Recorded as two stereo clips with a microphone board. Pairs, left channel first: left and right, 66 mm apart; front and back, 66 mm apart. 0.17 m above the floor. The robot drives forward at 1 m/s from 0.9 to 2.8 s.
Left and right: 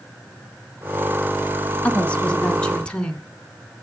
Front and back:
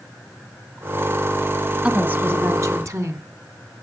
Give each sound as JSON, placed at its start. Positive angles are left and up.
{"t": 1.8, "sound": "a woman speaking", "azimuth_deg": 130, "distance_m": 1.3}